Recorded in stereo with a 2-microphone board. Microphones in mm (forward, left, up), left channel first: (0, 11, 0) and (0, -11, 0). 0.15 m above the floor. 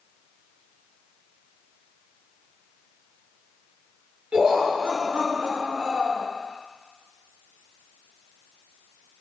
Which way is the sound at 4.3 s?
55° right (ahead or behind).